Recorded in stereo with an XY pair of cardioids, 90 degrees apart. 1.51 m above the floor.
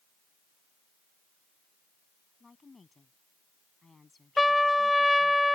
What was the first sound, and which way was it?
A woman speaking, 30° left.